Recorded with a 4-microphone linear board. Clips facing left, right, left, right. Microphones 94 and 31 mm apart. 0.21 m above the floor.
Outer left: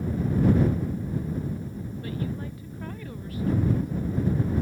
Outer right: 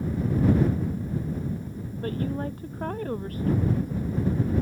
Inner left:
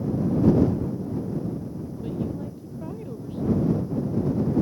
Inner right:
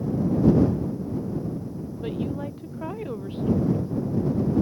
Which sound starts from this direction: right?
A woman speaking, at 2.0 s.